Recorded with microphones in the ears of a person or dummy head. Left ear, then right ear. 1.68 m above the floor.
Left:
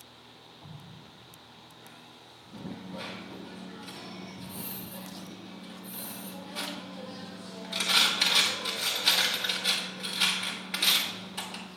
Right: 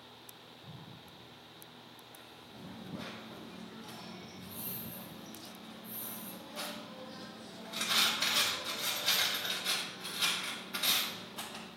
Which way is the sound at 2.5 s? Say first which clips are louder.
Left 6 dB; 45° left (ahead or behind).